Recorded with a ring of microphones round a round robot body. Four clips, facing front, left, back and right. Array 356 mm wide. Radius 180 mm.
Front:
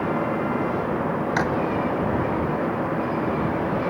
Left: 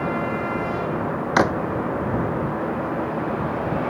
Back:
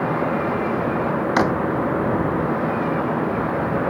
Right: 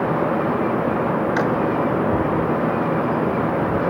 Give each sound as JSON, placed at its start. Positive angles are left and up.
{"t": 1.4, "sound": "a drawer", "azimuth_deg": 120}